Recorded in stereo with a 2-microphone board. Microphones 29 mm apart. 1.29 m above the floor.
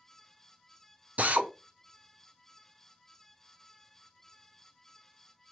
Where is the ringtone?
No ringtone in this recording.